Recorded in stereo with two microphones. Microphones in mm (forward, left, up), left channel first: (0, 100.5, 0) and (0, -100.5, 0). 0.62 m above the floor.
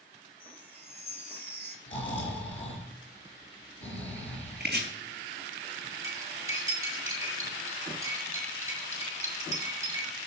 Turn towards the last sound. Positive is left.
turn(degrees=-15)  # may be behind; listen again after turning